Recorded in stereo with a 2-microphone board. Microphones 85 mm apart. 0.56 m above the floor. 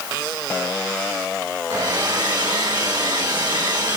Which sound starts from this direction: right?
A hair dryer, at 1.7 s.